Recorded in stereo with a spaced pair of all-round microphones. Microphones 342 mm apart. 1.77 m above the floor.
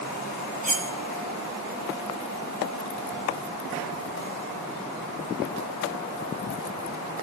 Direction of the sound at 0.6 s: 25° right (ahead or behind).